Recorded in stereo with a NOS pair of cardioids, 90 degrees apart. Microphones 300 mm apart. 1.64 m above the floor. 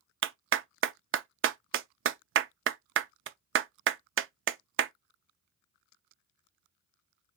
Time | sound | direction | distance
0.2 | a clap | 45° right | 0.5 m